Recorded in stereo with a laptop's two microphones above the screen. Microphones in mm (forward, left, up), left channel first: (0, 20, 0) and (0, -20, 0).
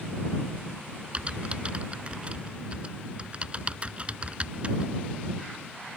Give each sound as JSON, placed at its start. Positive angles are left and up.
{"t": 1.1, "sound": "typing on a keyboard", "side_deg": -30}